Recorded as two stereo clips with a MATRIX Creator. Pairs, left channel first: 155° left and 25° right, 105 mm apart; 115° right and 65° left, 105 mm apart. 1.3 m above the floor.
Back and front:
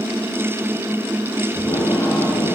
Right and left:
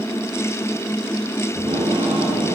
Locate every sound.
1.6 s tape being pulled: 95° left, 8 m